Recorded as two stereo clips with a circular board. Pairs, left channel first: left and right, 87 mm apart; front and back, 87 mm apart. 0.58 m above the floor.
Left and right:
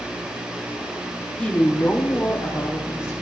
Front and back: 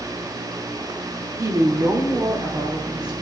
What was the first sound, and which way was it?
A woman speaking, 160° left.